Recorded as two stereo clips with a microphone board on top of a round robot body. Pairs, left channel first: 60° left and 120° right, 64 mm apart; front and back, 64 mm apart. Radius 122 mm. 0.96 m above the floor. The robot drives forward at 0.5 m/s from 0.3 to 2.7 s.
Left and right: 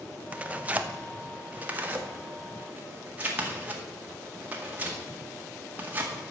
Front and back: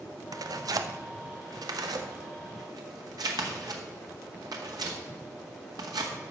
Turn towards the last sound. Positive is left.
turn(degrees=175)